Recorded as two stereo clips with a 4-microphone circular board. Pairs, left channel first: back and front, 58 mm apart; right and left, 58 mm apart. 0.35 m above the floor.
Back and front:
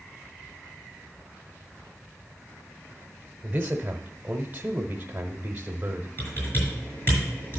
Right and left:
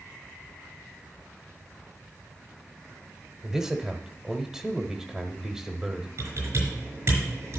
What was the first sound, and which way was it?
A man speaking, 20° left.